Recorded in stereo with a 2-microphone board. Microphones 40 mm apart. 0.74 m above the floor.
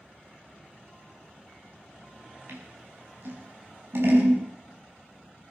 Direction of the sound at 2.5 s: 60° right (ahead or behind).